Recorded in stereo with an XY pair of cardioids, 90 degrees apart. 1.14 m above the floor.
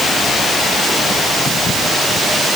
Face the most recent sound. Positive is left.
No sound to turn to.